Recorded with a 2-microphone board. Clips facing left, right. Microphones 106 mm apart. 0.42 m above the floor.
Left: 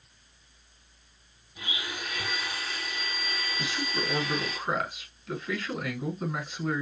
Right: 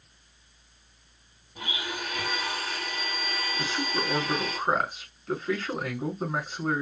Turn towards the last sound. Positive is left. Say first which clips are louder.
# right 3 dB
turn(degrees=-40)  # may be behind; listen again after turning